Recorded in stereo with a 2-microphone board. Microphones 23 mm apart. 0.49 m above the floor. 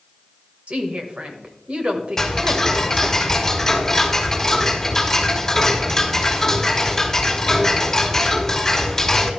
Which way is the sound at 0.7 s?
60° right (ahead or behind).